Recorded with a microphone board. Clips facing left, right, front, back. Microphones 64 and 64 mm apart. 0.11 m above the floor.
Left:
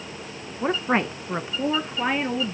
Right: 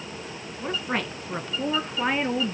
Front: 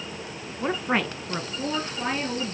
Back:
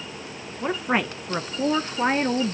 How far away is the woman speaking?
About 1.3 m.